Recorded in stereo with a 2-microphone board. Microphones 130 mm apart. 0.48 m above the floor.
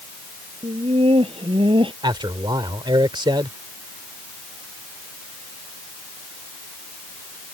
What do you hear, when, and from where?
0.6 s laughter: 50° right (ahead or behind); by 1.9 s 40° right (ahead or behind)
2.0 s a man speaking: 35° right (ahead or behind)